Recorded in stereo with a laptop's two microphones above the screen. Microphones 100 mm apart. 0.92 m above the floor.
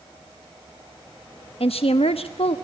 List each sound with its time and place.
1.6 s a woman speaking: 75° left (ahead or behind), 1.1 m